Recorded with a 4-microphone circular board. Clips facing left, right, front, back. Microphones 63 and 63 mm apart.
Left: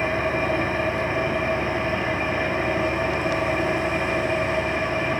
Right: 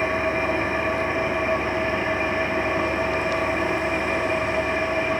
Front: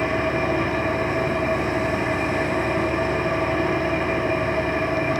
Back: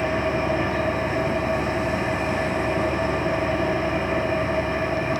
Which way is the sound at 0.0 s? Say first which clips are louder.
Even, front 1 dB; 20° right.